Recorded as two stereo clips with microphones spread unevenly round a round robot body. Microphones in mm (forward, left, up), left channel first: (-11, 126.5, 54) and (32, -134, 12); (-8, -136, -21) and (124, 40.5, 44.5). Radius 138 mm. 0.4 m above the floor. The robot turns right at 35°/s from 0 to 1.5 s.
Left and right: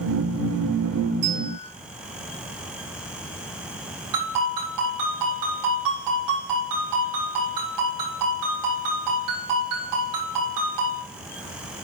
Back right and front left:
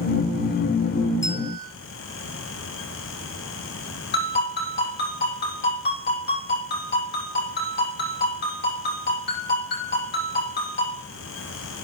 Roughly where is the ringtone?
Right.